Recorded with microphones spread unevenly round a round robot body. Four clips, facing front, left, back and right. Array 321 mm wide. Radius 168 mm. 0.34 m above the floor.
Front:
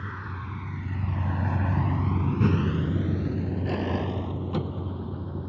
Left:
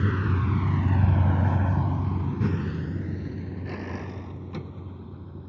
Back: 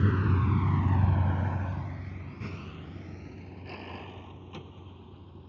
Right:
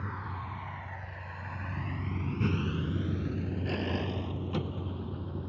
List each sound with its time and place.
0.0 s a vehicle: 135° left; by 5.5 s 10° right